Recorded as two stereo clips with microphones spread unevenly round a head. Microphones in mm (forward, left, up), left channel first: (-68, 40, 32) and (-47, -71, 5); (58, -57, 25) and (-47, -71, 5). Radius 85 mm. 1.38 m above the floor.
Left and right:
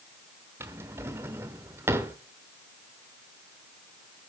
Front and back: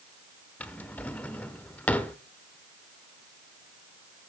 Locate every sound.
0.6 s a drawer: straight ahead, 1.1 m